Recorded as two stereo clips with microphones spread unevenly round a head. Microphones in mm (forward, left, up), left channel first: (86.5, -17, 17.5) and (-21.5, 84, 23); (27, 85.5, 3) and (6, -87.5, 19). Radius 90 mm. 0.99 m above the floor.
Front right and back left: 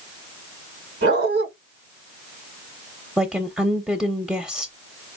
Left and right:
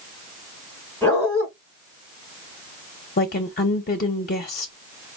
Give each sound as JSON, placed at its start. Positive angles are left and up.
{"t": 1.0, "sound": "a dog barking", "azimuth_deg": 165, "distance_m": 3.0}
{"t": 3.2, "sound": "a woman speaking", "azimuth_deg": 50, "distance_m": 0.8}